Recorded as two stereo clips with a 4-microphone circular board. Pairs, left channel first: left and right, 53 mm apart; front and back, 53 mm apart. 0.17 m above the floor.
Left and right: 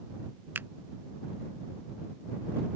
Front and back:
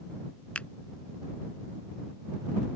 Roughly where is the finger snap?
Ahead right.